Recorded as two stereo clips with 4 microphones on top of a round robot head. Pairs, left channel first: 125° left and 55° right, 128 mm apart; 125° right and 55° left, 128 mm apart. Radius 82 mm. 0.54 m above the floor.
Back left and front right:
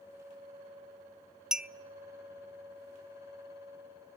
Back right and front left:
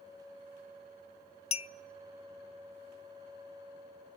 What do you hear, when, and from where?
1.5 s a clink: 140° right, 0.6 m